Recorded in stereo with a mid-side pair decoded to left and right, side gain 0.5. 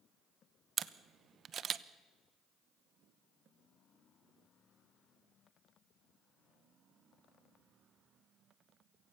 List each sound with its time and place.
0.8 s a camera shutter: 50° right, 0.9 m